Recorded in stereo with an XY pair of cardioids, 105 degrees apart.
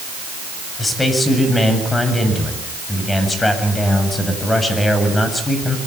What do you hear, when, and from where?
0.8 s a man speaking: 20° left, 8 m